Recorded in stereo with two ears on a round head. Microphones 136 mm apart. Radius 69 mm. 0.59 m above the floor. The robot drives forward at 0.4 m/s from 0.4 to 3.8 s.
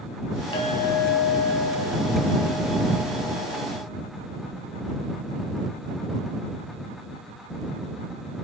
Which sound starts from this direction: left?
A clink, at 0.5 s.